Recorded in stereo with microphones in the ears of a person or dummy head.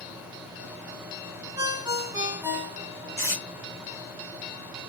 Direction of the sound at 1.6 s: 20° right (ahead or behind).